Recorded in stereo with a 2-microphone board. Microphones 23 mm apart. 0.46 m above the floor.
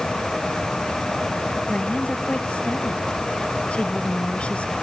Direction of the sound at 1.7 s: 60° left (ahead or behind).